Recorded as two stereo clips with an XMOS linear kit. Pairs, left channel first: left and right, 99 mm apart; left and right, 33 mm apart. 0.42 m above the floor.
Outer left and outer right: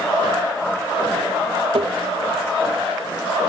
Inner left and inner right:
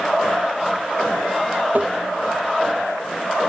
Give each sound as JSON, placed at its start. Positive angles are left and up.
{"t": 1.7, "sound": "tapping", "side_deg": -65}